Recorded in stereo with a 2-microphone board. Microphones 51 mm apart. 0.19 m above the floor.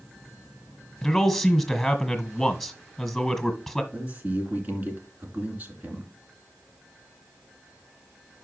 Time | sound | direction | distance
1.0 | a man speaking | 5° left (ahead or behind) | 1.5 m
3.9 | a man speaking | 35° right (ahead or behind) | 2.5 m